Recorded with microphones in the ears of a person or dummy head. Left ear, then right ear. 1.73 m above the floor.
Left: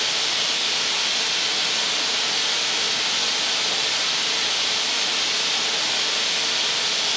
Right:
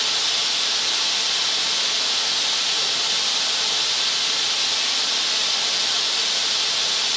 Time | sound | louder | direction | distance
0.0 | running water | right 1 dB | 30° right (ahead or behind) | 2 m